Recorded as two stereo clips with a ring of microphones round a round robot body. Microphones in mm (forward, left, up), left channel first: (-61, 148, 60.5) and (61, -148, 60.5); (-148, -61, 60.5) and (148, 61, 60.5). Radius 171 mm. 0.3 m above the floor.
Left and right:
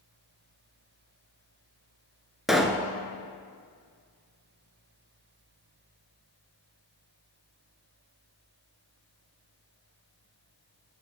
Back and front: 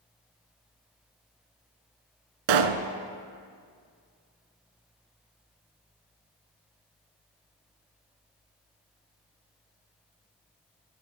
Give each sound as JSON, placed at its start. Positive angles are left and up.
{"t": 2.5, "sound": "a pop", "azimuth_deg": 20, "distance_m": 0.9}